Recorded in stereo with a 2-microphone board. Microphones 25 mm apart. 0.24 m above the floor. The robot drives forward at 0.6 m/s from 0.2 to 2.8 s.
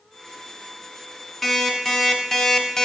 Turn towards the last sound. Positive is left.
turn(degrees=30)  # may be behind; listen again after turning